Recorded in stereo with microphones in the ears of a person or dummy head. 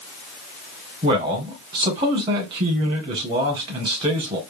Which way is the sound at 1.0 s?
30° right (ahead or behind).